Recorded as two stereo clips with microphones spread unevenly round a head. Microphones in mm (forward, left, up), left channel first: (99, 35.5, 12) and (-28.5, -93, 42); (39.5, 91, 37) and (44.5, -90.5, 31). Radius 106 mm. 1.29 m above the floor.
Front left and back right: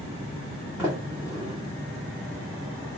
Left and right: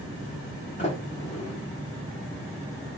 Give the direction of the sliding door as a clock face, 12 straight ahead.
7 o'clock.